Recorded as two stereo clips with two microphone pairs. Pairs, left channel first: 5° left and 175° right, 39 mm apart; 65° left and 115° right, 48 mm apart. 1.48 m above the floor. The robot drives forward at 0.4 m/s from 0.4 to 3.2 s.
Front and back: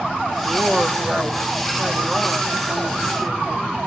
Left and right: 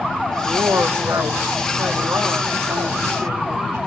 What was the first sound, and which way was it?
A woman speaking, 110° right.